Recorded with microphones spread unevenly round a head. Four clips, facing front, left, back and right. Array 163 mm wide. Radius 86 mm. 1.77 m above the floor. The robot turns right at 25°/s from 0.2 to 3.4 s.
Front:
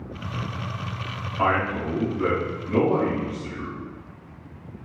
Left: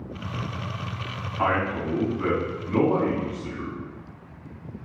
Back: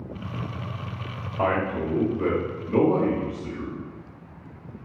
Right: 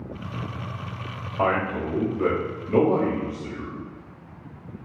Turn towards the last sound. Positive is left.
turn(degrees=-90)